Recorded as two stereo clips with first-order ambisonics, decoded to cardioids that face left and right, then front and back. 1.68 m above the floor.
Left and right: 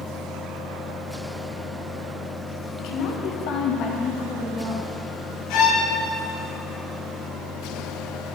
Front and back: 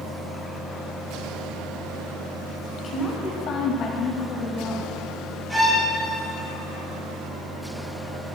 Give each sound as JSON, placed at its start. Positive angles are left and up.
{"t": 2.8, "sound": "a woman speaking", "azimuth_deg": 70, "distance_m": 1.5}
{"t": 5.5, "sound": "a violin", "azimuth_deg": 100, "distance_m": 2.5}